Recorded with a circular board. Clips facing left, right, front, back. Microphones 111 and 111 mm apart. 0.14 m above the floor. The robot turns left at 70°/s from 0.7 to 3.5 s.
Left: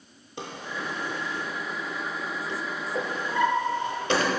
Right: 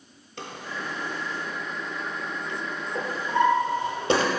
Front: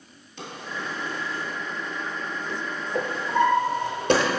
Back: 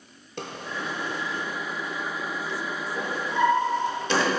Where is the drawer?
160° left, 0.6 m; by 4.3 s 35° right, 0.6 m.